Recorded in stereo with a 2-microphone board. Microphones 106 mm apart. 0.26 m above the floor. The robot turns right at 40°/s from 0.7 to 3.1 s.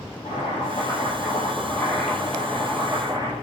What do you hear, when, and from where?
0.2 s boiling: 120° left, 7 m; by 3.3 s 145° right, 7 m